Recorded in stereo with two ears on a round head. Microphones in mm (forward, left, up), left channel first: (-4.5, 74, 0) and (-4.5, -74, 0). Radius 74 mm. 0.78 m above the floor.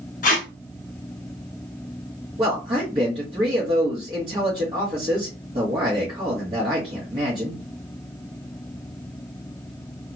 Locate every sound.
0.2 s tape being pulled: 50° left (ahead or behind), 0.7 m
2.4 s a man speaking: 35° right (ahead or behind), 1.3 m